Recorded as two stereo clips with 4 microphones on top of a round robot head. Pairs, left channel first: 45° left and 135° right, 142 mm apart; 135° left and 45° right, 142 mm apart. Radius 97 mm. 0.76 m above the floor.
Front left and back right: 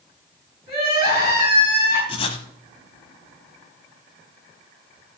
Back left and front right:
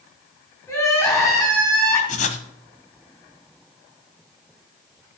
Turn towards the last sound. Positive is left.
turn(degrees=100)